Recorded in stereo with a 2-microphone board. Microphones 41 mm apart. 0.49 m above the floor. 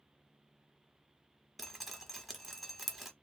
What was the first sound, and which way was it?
Dripping, 5° right (ahead or behind).